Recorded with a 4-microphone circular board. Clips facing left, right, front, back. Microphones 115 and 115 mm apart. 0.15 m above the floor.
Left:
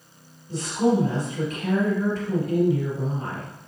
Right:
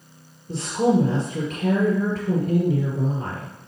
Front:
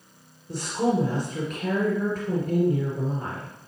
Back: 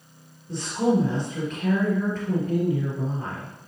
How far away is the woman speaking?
About 2.5 m.